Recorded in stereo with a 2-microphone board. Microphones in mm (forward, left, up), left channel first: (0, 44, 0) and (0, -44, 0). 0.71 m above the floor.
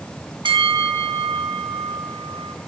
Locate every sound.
0.5 s a bell: 55° right (ahead or behind), 0.8 m